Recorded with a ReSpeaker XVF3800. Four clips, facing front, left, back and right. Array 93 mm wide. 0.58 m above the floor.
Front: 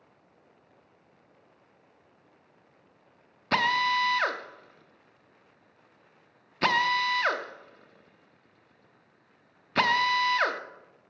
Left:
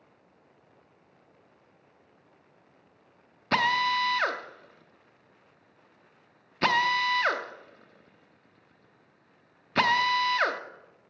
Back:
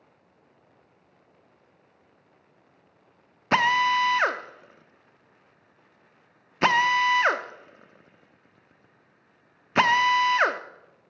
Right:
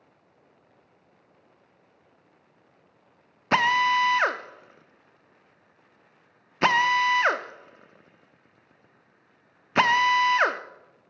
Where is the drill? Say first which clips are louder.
Right 4 dB, back 4 dB; 140° right, 0.6 m.